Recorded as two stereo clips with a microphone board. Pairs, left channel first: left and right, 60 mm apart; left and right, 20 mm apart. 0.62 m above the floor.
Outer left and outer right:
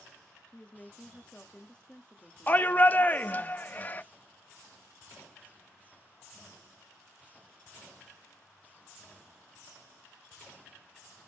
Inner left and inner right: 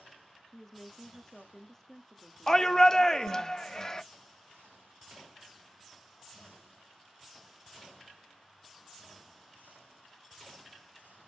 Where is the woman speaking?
20° left (ahead or behind), 0.8 m.